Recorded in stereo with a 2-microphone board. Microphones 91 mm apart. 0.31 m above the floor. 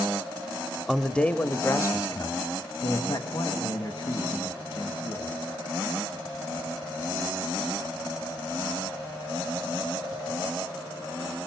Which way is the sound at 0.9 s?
Centre (ahead or behind).